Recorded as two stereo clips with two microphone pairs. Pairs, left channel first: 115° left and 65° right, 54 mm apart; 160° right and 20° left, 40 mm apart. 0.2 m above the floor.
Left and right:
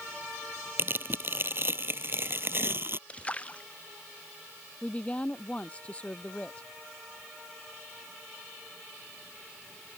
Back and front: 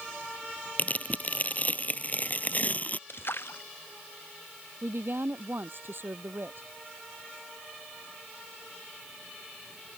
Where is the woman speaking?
50° left.